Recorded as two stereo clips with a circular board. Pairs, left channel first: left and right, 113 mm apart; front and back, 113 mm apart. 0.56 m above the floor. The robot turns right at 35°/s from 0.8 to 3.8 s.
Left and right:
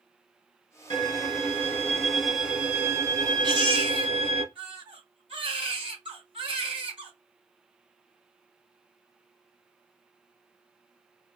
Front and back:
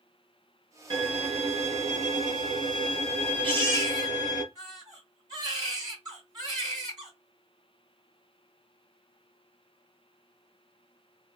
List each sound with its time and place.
0.9 s a violin: 135° left, 2.5 m; by 4.4 s 125° right, 2.5 m
3.4 s a baby crying: 140° right, 2.5 m; by 7.1 s 130° right, 2.5 m